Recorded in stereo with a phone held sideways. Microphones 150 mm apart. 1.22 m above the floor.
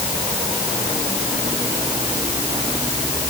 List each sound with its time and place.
Only background noise.